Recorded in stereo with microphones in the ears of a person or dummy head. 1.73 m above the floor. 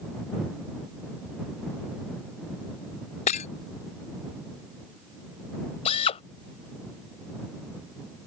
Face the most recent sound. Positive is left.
turn(degrees=35)  # may be behind; listen again after turning